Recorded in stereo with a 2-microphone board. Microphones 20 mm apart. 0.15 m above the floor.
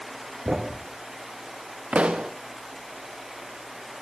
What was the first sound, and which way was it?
A thud, 70° right (ahead or behind).